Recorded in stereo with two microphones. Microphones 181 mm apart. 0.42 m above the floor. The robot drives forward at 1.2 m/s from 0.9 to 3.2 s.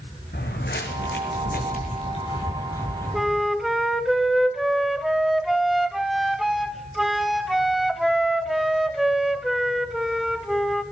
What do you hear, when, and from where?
0.3 s footsteps: 65° left (ahead or behind), 2.0 m; by 3.5 s 10° left (ahead or behind), 4.5 m
3.1 s a flute: centre (ahead or behind), 0.5 m